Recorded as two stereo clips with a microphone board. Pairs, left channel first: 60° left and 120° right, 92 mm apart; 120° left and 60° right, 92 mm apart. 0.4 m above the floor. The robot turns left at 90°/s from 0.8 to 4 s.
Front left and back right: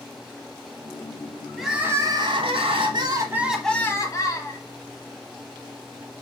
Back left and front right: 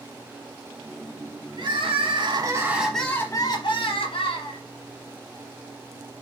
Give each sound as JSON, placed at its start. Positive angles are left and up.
{"t": 1.6, "sound": "crying", "azimuth_deg": -30, "distance_m": 1.0}